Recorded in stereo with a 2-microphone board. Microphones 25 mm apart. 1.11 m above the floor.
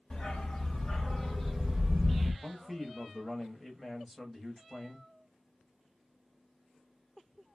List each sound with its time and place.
0.1 s a dog barking: 40° left (ahead or behind), 1.1 m; by 2.3 s 30° right (ahead or behind), 0.9 m
2.4 s a man speaking: 5° right (ahead or behind), 1.1 m